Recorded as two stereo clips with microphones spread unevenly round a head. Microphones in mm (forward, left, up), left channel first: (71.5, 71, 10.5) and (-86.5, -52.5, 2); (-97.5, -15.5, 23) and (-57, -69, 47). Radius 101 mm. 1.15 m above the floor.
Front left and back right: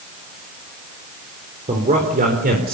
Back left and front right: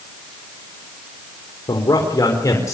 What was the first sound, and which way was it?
A man speaking, 155° left.